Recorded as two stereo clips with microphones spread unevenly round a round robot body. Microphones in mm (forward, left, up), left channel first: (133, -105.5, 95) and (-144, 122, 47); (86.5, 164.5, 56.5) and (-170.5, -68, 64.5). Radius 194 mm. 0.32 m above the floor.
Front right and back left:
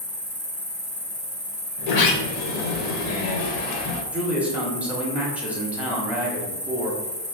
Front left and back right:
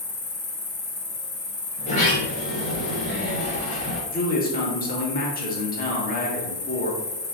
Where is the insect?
20° left, 1.7 m.